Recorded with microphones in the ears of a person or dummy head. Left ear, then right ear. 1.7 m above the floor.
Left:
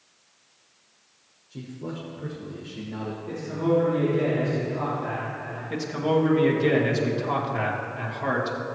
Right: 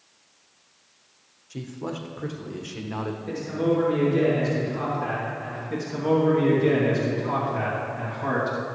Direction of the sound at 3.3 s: 35° right (ahead or behind).